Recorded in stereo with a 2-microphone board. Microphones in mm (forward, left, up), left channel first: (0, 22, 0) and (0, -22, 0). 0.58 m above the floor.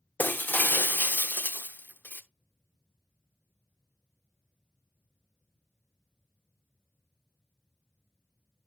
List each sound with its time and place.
0.2 s breaking glass: 45° left (ahead or behind), 0.7 m